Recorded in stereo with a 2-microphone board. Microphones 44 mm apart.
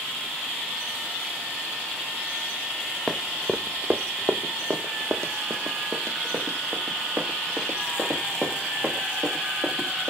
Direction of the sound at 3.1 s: Centre (ahead or behind).